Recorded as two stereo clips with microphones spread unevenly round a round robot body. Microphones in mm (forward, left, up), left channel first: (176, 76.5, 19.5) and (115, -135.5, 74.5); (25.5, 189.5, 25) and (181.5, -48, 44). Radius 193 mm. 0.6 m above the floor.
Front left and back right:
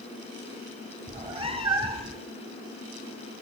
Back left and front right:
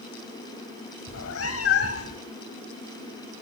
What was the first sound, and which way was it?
A cat meowing, straight behind.